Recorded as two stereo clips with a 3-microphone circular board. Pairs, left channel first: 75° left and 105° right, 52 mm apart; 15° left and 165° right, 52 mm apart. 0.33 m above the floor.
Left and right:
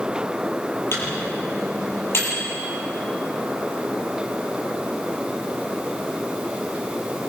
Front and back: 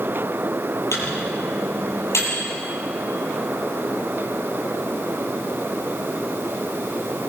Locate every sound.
0.9 s a microwave: 40° left, 8.5 m